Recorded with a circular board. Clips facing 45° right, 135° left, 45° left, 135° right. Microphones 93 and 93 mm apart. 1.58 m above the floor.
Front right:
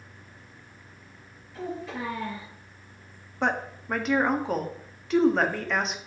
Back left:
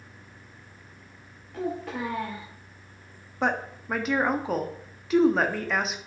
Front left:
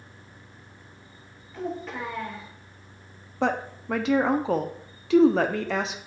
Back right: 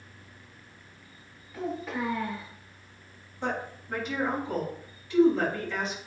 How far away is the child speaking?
About 2.5 m.